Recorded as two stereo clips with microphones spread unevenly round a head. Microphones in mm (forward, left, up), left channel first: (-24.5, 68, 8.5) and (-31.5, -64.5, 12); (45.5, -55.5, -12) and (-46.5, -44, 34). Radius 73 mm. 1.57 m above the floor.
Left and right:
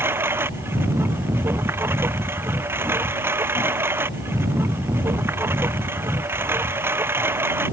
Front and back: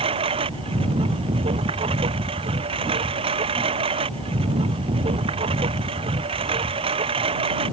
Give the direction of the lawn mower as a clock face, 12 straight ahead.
6 o'clock.